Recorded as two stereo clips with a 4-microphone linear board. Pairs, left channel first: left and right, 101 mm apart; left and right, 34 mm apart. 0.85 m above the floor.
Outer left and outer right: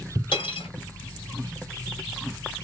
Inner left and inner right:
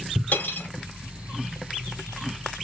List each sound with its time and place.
0.3 s cutlery clinking: 55° left (ahead or behind), 2.5 m